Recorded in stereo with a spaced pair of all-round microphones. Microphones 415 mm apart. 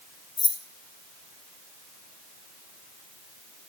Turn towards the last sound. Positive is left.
turn(degrees=40)  # may be behind; listen again after turning